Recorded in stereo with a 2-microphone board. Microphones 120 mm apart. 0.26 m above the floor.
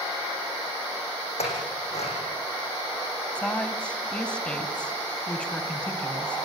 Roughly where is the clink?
Left.